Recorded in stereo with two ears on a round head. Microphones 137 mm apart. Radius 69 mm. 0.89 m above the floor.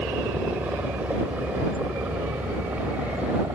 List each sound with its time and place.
0.0 s a helicopter: 10° right (ahead or behind)